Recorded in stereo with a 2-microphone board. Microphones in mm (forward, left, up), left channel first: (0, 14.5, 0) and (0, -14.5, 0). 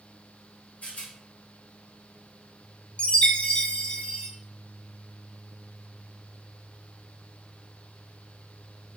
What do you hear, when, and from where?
0.8 s a rattle: 55° left (ahead or behind), 1.3 m
3.0 s a chime: 45° left (ahead or behind), 0.6 m